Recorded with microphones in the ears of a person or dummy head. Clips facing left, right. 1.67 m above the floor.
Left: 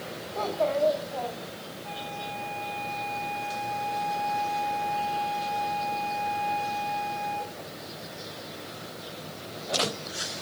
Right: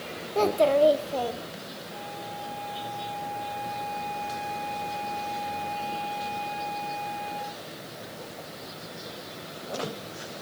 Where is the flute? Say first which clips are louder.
Left 3 dB; 85° left, 5.5 m.